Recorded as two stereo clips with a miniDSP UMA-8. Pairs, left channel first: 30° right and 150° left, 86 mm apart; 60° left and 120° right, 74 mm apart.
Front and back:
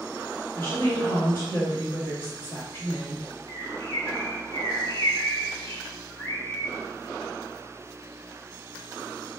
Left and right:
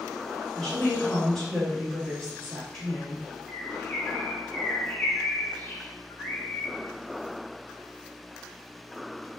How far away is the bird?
About 1.9 m.